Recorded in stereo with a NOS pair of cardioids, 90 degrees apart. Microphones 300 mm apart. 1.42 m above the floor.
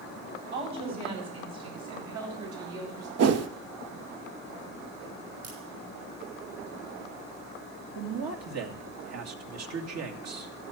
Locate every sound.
0.5 s a woman speaking: 65° right, 9.5 m; by 3.1 s 75° right, 9 m
3.2 s a whoosh: 55° right, 1.0 m
5.4 s a crack: 55° right, 7.5 m
8.0 s a man speaking: 55° right, 2.5 m